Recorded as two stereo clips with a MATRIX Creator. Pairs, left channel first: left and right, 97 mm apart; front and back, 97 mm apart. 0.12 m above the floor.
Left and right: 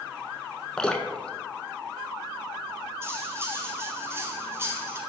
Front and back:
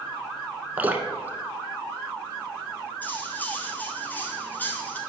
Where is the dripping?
155° left, 0.6 m.